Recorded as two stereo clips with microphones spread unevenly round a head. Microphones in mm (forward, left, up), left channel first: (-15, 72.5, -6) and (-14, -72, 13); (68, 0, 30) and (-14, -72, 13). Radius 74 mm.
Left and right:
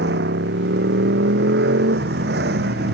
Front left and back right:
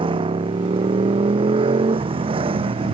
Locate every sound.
0.0 s a motorcycle: 100° right; by 2.9 s 105° right